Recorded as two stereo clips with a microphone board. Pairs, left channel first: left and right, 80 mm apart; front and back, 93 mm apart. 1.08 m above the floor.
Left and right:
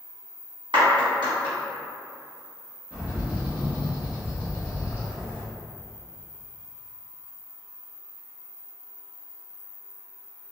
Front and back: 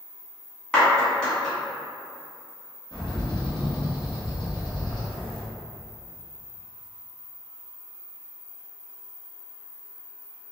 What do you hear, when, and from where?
0.7 s a clap: 80° right, 1.2 m
2.9 s a bird: 20° right, 1.1 m